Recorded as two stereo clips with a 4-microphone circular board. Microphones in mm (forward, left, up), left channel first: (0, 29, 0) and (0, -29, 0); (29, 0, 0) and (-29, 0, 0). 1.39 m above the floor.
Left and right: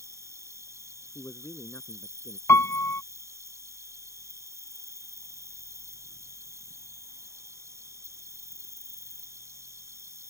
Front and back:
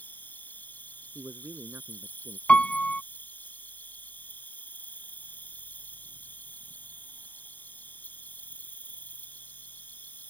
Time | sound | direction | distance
0.0 | an insect | 60° right | ?
1.1 | a man speaking | 135° left | ?
2.5 | a piano | 65° left | ?